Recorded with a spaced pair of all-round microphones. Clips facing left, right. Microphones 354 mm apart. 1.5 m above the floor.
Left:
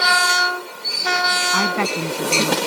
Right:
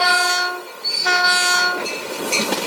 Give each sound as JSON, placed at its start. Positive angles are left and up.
{"t": 1.5, "sound": "a woman speaking", "side_deg": 85}